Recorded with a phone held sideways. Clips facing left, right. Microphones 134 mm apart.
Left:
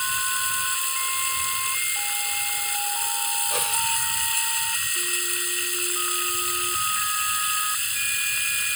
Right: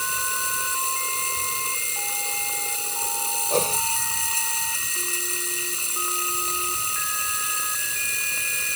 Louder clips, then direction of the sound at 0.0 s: Even; 35° right (ahead or behind).